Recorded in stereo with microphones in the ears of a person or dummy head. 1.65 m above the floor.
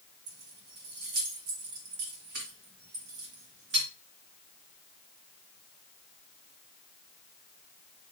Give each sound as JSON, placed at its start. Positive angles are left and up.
{"t": 0.3, "sound": "keys jangling", "side_deg": -50, "distance_m": 2.0}